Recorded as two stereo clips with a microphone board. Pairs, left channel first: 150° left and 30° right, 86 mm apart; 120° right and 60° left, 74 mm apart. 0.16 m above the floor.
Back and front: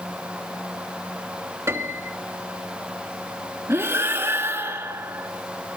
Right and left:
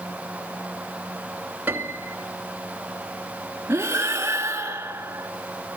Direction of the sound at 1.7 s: 10° left.